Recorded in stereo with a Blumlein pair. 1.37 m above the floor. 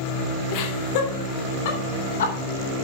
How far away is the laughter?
About 3.5 m.